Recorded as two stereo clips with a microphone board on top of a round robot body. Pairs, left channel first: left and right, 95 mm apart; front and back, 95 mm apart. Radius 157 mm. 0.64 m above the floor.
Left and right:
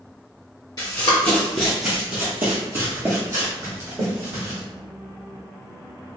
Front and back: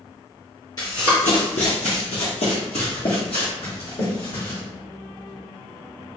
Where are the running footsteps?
45° left, 0.7 m; by 4.6 s 35° right, 2 m.